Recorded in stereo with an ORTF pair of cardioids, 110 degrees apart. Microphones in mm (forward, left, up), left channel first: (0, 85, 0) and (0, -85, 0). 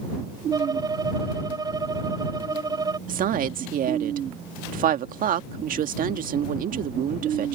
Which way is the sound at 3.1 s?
55° right.